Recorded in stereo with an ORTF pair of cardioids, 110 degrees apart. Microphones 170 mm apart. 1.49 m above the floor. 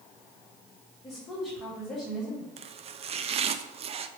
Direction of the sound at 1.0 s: 10° left.